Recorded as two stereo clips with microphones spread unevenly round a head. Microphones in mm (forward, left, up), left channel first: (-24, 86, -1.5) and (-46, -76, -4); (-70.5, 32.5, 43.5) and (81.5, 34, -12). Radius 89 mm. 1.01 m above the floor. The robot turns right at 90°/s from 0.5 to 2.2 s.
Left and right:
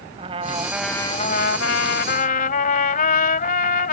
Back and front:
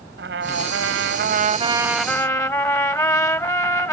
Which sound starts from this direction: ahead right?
A trumpet, at 0.2 s.